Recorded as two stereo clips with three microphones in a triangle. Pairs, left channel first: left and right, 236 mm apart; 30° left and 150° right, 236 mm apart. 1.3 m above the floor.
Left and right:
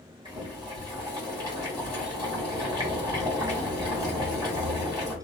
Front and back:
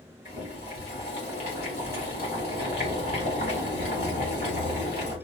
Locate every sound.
0.2 s boiling: 15° right, 1.7 m